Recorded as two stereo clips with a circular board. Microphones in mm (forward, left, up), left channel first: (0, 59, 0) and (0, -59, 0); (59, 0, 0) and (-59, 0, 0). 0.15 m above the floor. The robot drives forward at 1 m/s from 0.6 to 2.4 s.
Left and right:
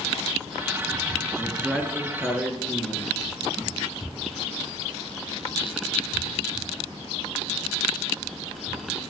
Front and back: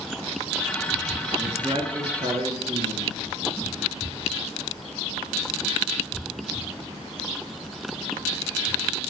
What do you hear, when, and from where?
1.4 s a man speaking: 165° left, 1.2 m; by 3.1 s 175° left, 1.9 m